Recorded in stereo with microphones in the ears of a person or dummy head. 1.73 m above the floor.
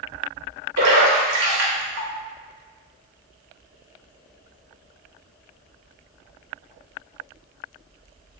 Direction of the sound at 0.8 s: 60° right (ahead or behind).